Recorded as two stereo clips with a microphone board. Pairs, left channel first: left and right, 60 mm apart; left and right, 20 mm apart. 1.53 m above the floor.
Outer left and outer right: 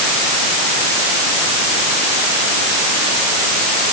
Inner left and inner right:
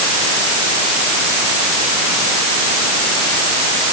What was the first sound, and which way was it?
Only background noise.